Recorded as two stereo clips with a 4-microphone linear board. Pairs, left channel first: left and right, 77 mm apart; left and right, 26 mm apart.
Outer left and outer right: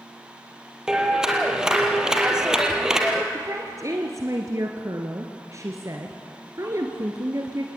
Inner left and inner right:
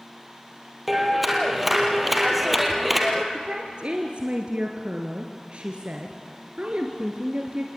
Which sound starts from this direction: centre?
A clap, at 0.9 s.